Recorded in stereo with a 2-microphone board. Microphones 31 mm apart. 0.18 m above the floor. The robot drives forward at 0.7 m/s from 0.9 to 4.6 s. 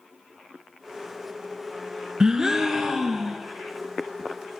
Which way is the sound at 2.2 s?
25° right (ahead or behind).